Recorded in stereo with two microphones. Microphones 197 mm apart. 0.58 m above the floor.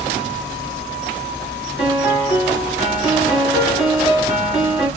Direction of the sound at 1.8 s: 10° right (ahead or behind).